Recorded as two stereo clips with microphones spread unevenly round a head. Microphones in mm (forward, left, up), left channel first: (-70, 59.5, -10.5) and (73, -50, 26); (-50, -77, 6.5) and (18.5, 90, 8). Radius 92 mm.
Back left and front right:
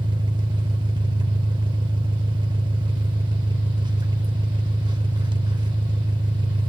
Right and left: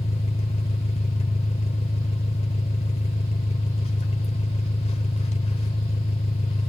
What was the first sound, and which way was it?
An engine running, 75° right.